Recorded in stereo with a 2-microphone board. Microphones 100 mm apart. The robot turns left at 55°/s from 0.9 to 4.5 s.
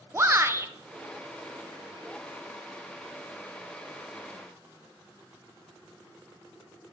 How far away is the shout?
About 0.7 m.